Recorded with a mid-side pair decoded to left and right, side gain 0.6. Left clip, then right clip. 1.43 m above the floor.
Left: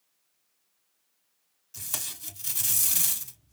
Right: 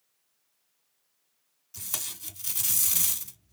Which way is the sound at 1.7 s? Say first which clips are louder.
Even; straight ahead.